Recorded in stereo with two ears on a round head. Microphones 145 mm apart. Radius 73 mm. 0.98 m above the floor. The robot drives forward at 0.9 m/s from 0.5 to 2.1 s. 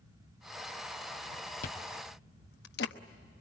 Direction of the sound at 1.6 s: 50° left (ahead or behind).